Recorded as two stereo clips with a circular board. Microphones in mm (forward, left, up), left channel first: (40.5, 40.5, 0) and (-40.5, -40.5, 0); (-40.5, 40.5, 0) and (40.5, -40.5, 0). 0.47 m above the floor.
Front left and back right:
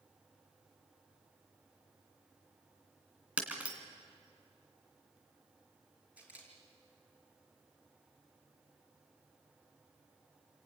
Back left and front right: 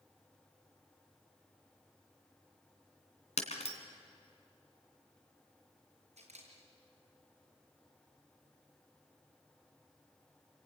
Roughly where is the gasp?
I don't hear a gasp.